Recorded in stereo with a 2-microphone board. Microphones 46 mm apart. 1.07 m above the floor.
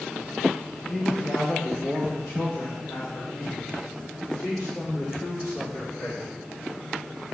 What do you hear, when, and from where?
0.9 s a man speaking: 25° left (ahead or behind), 0.8 m; by 6.3 s 85° left, 3 m